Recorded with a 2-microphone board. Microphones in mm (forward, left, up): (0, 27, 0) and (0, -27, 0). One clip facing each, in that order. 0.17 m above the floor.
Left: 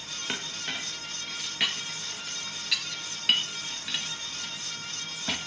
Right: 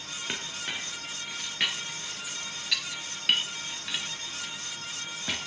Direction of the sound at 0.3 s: 5° right (ahead or behind).